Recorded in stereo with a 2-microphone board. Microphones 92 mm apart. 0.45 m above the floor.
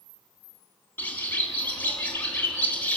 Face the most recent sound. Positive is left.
turn(degrees=20)  # may be behind; listen again after turning